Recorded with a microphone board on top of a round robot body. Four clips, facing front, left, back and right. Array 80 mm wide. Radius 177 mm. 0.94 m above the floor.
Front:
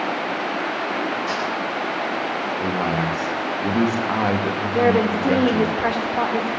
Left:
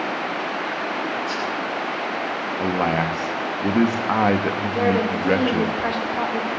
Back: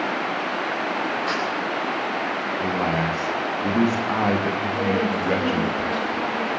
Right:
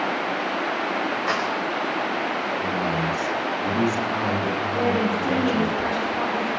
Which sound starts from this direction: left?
A man speaking, at 2.6 s.